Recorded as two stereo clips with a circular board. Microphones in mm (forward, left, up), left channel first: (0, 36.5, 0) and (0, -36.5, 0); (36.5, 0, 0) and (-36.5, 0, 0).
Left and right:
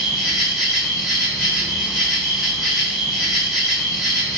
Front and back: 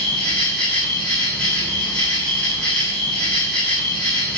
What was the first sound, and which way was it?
An insect, 20° right.